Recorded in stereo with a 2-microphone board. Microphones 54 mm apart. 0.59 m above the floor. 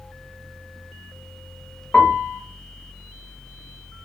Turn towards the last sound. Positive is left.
turn(degrees=25)  # may be behind; listen again after turning